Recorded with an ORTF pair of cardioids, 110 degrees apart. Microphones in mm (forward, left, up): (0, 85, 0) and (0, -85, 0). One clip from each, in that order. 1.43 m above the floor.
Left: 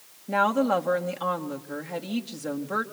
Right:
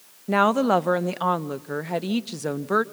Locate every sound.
0.3 s a woman speaking: 35° right, 1.0 m